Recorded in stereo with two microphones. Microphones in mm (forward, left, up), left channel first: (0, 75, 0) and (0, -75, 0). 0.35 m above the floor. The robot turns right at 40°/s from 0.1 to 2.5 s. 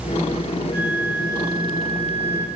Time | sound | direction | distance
0.7 | a flute | 100° right | 1.3 m